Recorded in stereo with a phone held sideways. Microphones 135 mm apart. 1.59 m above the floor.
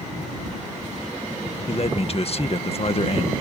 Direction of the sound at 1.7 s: 50° left (ahead or behind).